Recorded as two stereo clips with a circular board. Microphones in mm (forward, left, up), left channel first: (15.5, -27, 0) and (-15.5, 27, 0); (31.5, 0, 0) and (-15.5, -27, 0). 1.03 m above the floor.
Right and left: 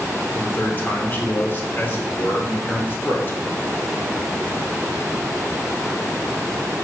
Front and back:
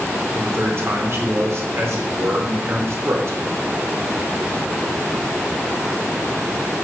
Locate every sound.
0.3 s a man speaking: 120° right, 1.6 m